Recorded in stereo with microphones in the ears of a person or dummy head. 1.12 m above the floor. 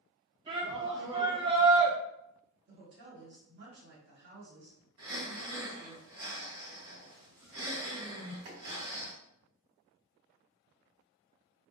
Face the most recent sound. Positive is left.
turn(degrees=-60)  # may be behind; listen again after turning